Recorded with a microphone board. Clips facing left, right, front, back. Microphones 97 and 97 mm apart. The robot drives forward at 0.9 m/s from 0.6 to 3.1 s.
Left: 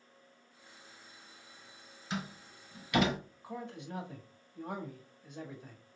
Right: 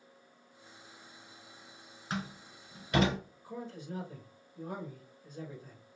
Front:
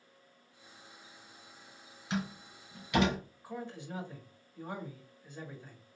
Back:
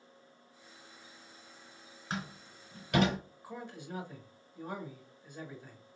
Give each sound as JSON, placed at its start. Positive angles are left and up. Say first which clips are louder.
{"t": 2.1, "sound": "a door slam", "louder": "right 1 dB, front 4 dB", "azimuth_deg": -135, "distance_m": 2.5}
{"t": 3.4, "sound": "a man speaking", "louder": "left 1 dB, front 4 dB", "azimuth_deg": 105, "distance_m": 1.7}